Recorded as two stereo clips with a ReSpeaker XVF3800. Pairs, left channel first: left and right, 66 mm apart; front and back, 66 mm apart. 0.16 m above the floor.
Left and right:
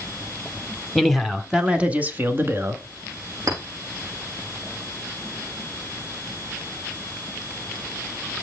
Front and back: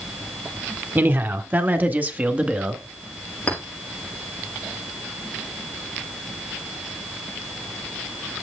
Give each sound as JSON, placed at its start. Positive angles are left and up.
{"t": 0.9, "sound": "a man speaking", "azimuth_deg": 175, "distance_m": 1.2}
{"t": 3.5, "sound": "a clink", "azimuth_deg": -65, "distance_m": 7.0}